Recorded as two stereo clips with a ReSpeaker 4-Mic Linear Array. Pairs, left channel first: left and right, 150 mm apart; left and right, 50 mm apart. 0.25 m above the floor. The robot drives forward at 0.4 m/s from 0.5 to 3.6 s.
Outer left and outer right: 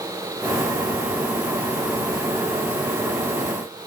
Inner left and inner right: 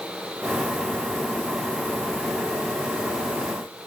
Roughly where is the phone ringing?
I don't hear a phone ringing.